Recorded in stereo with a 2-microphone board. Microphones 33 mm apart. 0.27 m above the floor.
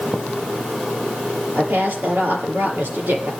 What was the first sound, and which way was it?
A woman speaking, 75° right (ahead or behind).